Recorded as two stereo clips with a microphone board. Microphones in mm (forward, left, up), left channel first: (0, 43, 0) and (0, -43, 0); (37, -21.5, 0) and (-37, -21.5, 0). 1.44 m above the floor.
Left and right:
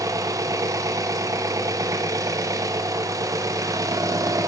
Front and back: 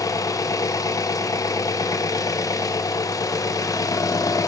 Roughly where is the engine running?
Ahead right.